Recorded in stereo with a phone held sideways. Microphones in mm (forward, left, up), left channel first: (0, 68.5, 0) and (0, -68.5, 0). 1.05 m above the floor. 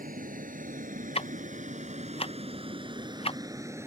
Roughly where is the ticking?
Left.